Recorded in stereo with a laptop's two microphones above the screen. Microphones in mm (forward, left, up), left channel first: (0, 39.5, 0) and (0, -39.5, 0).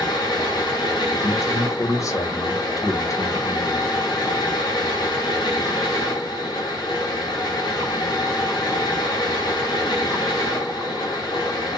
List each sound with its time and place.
0.0 s a fan: 65° left (ahead or behind), 0.7 m
1.2 s a man speaking: 40° left (ahead or behind), 0.7 m